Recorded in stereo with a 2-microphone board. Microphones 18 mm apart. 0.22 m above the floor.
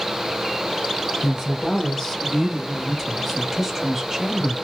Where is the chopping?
No chopping in this recording.